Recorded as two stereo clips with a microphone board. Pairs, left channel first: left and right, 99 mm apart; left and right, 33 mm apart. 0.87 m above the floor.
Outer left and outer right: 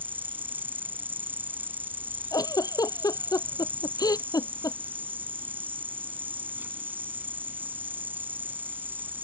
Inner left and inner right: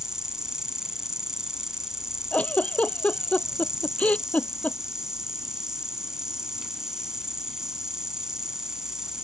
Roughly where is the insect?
Centre.